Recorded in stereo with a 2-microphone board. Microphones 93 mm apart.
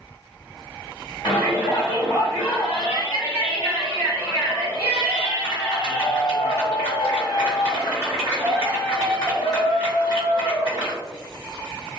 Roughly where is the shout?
Left.